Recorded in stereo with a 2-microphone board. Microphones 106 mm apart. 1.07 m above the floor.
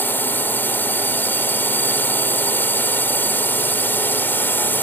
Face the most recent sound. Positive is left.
turn(degrees=20)  # may be behind; listen again after turning